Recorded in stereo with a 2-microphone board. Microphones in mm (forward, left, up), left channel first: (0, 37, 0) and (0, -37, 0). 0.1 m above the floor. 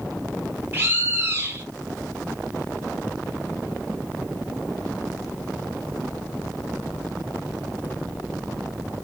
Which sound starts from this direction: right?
A bird, at 0.7 s.